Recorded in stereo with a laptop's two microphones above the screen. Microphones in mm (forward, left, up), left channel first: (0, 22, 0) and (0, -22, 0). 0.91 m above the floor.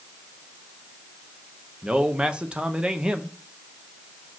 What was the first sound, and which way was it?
A man speaking, 20° right (ahead or behind).